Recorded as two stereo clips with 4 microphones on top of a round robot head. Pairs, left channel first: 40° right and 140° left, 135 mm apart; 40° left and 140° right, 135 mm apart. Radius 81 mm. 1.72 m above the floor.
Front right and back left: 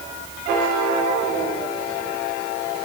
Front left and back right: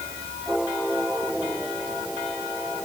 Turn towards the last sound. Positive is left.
No sound to turn to.